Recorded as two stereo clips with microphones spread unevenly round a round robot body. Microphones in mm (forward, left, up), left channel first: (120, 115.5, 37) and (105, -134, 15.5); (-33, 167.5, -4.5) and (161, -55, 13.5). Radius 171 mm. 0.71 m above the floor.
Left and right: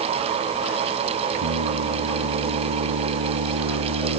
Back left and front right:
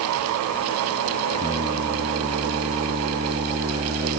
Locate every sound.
1.3 s singing: 125° right